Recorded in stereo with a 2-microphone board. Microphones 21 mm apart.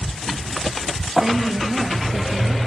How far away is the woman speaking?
About 4 m.